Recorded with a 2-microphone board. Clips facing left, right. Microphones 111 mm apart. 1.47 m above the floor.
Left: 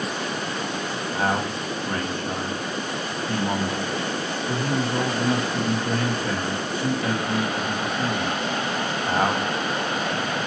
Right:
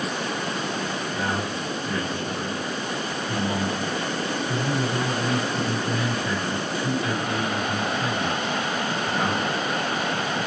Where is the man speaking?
50° left (ahead or behind), 1.5 m.